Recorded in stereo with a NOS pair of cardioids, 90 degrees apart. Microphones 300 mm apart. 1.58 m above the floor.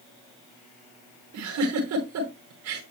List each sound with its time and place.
1.3 s a giggle: 70° right, 5.5 m